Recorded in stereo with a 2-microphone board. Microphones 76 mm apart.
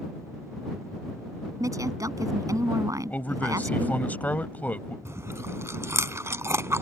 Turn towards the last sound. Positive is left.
turn(degrees=-40)  # may be behind; listen again after turning